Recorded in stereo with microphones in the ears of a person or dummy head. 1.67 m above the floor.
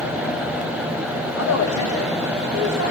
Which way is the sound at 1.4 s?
80° left.